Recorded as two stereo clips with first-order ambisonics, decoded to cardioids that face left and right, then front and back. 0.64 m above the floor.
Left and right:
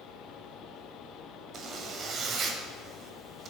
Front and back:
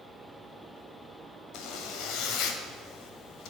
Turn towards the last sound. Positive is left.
turn(degrees=-35)